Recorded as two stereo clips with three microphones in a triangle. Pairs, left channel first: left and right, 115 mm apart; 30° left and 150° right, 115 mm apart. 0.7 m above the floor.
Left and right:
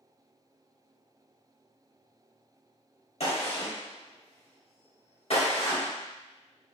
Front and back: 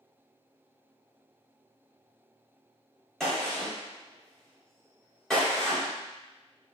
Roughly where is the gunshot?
Behind left.